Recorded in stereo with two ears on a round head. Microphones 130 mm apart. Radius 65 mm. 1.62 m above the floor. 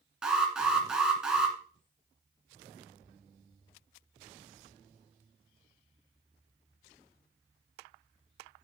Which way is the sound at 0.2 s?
5° right (ahead or behind).